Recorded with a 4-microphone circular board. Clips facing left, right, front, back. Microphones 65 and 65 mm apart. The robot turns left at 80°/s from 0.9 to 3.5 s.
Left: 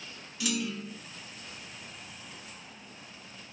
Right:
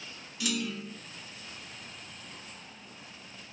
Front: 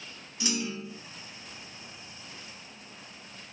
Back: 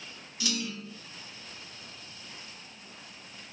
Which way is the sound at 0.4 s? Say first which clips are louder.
Left 1 dB, front 2 dB; 5° left.